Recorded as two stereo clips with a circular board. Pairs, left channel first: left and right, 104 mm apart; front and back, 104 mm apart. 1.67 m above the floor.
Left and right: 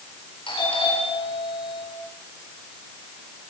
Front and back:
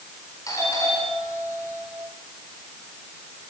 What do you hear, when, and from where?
0.5 s a doorbell: 55° left, 9 m